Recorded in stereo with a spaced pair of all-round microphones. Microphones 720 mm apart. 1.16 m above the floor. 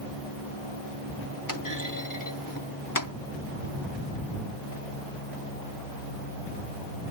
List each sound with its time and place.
1.5 s a clunk: 25° left (ahead or behind)